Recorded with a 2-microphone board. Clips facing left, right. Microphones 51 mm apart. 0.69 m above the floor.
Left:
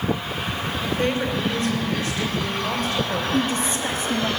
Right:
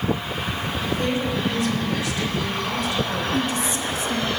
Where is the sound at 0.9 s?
40° left (ahead or behind), 2.5 m.